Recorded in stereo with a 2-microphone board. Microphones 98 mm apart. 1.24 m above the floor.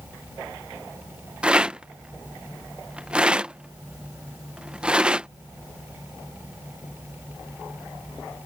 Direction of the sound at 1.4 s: 10° right (ahead or behind).